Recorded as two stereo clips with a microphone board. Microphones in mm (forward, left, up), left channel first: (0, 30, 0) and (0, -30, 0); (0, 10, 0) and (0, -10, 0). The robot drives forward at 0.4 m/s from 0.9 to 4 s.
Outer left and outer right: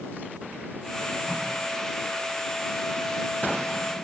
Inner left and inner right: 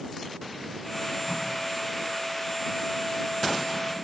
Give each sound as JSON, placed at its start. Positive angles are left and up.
{"t": 1.3, "sound": "tape being pulled", "side_deg": -20, "distance_m": 5.0}